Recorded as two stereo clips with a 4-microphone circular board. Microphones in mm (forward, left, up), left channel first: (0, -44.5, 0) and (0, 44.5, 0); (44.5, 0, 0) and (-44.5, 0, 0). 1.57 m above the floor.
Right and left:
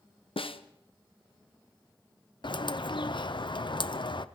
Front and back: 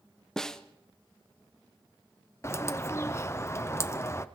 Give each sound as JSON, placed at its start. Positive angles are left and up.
{"t": 0.4, "sound": "a snare drum", "azimuth_deg": -85, "distance_m": 0.9}
{"t": 2.4, "sound": "a bird", "azimuth_deg": -60, "distance_m": 0.8}